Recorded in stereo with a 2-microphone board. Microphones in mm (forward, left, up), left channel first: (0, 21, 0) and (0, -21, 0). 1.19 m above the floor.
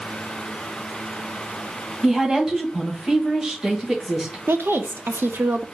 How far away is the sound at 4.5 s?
About 0.6 m.